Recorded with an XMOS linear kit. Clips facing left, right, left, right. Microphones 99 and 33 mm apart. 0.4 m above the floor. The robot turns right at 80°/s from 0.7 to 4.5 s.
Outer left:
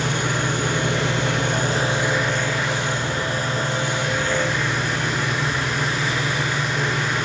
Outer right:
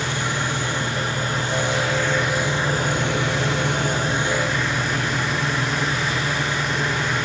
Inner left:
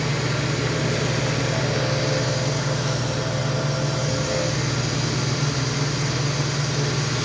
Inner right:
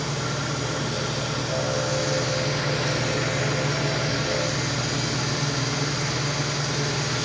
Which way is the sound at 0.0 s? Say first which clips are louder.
Outer left 2 dB, inner left 3 dB; 55° left.